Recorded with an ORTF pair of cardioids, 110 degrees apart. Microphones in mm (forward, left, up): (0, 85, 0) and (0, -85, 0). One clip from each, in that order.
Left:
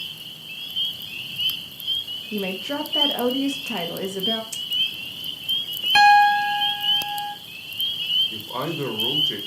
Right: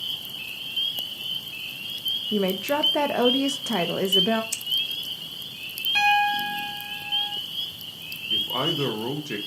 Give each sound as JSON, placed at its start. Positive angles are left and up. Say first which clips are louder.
{"t": 2.3, "sound": "a woman speaking", "louder": "right 1 dB", "azimuth_deg": -25, "distance_m": 0.7}
{"t": 4.5, "sound": "scissors", "louder": "left 3 dB", "azimuth_deg": -25, "distance_m": 0.8}
{"t": 6.0, "sound": "a piano", "louder": "left 7 dB", "azimuth_deg": 55, "distance_m": 0.7}
{"t": 8.3, "sound": "a man speaking", "louder": "right 4 dB", "azimuth_deg": -10, "distance_m": 1.3}